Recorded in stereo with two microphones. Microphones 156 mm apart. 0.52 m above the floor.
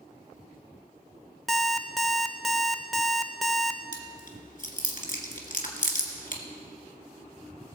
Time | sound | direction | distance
1.5 | an alarm clock | centre (ahead or behind) | 0.7 m
3.9 | chewing | 60° left (ahead or behind) | 1.9 m